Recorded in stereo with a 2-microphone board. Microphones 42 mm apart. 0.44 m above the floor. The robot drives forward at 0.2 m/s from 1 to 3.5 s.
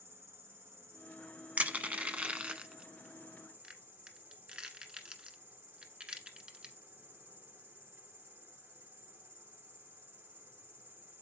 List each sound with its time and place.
0.0 s an insect: 80° right, 2.5 m; by 11.2 s 70° right (ahead or behind), 3 m
1.6 s crushing: 40° right (ahead or behind), 0.7 m; by 6.8 s 25° right (ahead or behind), 1.0 m